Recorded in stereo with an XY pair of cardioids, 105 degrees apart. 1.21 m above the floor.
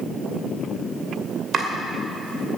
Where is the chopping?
50° right, 2.5 m.